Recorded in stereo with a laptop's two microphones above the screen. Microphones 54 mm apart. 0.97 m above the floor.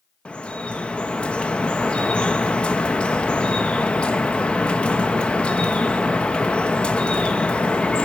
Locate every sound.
0.2 s dripping: 20° left (ahead or behind), 0.8 m